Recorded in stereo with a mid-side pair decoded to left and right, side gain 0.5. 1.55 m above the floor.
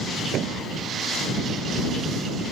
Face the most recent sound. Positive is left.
turn(degrees=-65)